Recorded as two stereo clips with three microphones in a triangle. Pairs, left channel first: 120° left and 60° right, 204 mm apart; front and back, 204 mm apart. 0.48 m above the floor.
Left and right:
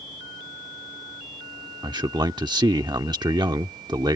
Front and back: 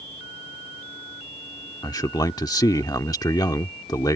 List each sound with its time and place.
1.8 s a man speaking: 35° right